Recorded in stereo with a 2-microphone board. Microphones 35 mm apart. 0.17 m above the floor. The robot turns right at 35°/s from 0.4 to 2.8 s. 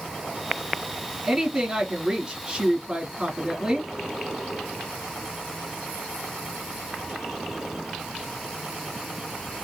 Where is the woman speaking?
5° right (ahead or behind), 1.4 m; by 3.9 s 20° right (ahead or behind), 1.4 m.